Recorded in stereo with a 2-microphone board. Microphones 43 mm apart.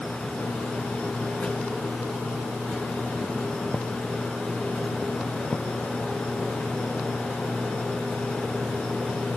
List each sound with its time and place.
Only background noise.